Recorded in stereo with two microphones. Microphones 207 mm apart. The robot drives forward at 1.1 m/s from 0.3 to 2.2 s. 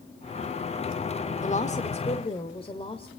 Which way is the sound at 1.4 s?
35° left (ahead or behind).